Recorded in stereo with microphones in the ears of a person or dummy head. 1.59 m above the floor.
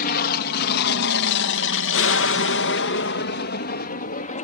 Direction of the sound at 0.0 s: 50° left (ahead or behind).